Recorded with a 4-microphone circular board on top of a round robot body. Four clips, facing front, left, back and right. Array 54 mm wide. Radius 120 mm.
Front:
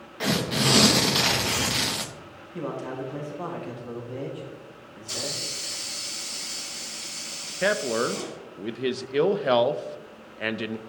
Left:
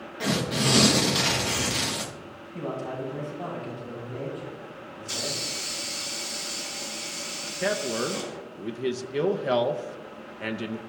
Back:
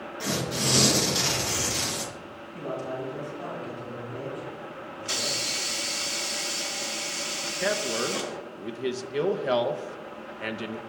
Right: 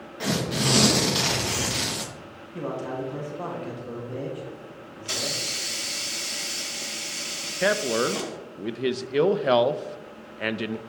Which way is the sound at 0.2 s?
Straight ahead.